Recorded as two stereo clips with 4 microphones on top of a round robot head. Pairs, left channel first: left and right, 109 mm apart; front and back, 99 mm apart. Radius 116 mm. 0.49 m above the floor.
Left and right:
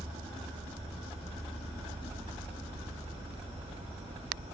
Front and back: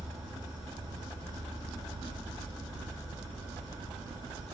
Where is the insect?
120° right, 0.7 m.